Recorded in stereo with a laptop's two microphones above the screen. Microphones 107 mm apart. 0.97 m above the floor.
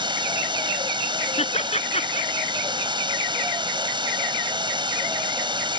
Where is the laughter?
85° left.